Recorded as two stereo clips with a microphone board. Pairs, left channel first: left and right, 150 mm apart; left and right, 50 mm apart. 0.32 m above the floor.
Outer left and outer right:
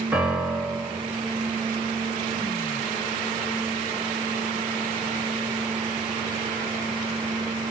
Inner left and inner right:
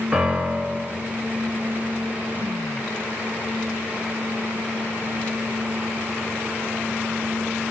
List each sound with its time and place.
0.1 s a piano: 10° right (ahead or behind), 3 m